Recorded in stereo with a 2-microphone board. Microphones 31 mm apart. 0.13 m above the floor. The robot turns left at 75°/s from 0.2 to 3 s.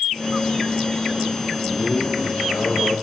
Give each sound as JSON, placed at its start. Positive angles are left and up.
{"t": 1.6, "sound": "a man speaking", "azimuth_deg": 170, "distance_m": 4.0}